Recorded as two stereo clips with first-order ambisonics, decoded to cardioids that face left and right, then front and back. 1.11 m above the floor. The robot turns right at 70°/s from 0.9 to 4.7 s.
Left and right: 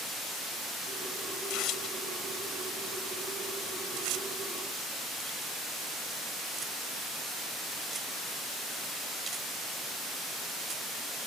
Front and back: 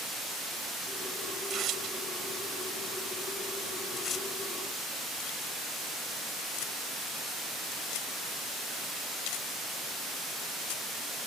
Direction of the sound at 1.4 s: 110° left.